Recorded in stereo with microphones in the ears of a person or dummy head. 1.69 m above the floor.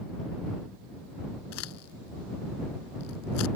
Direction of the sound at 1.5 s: 85° left.